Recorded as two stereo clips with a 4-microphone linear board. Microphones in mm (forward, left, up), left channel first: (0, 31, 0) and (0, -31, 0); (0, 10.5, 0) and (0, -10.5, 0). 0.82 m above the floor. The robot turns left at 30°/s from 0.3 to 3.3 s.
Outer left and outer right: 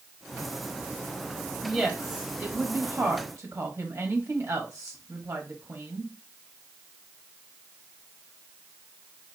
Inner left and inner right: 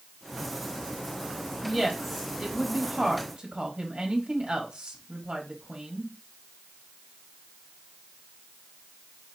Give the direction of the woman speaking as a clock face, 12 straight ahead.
12 o'clock.